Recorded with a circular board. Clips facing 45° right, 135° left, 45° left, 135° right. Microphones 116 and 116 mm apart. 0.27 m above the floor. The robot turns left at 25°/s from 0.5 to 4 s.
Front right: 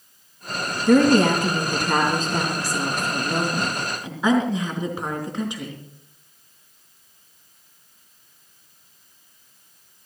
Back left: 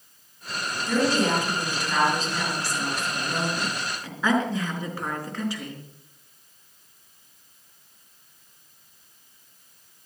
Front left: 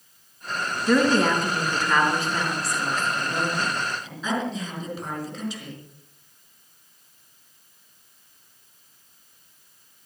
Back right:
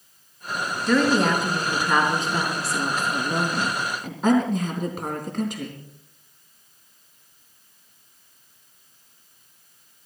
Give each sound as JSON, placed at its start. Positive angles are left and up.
{"t": 0.9, "sound": "a woman speaking", "azimuth_deg": -35, "distance_m": 4.0}